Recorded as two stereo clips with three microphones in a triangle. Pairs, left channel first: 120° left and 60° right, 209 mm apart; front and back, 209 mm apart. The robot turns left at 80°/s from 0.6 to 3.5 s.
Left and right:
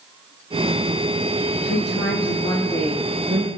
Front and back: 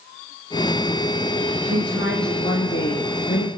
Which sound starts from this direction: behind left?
A woman speaking, at 1.6 s.